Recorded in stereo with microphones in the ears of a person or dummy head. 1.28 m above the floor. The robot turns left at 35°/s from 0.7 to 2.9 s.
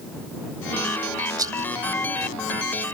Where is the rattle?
20° right (ahead or behind); by 1.7 s 10° right (ahead or behind).